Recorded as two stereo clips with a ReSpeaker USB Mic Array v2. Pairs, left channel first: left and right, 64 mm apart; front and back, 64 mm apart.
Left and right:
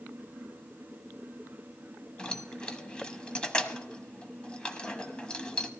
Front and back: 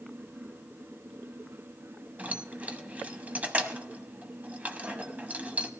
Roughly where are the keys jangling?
Behind left.